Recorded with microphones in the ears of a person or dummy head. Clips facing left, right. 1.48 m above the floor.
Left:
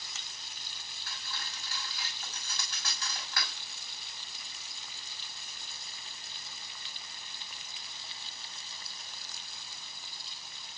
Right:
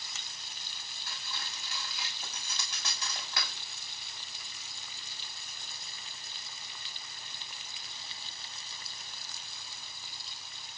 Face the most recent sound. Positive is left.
turn(degrees=-20)  # may be behind; listen again after turning